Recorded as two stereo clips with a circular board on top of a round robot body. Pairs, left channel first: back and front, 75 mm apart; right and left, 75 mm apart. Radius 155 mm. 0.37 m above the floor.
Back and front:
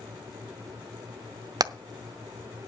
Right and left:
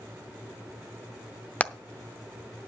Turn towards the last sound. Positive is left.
turn(degrees=-20)